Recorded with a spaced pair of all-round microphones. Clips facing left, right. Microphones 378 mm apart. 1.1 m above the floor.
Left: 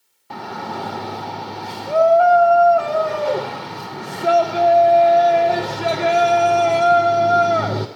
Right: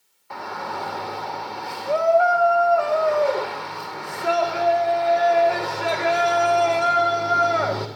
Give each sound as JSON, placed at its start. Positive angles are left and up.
{"t": 0.3, "sound": "a shout", "side_deg": 50, "distance_m": 0.6}